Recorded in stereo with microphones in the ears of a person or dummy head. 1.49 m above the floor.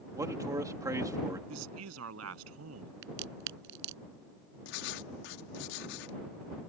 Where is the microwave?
I don't hear a microwave.